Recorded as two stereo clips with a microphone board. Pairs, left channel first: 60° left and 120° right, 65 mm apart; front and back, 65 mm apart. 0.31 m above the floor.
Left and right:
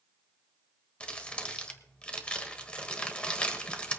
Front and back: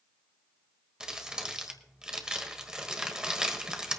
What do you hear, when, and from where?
1.0 s crumpling: 115° left, 1.5 m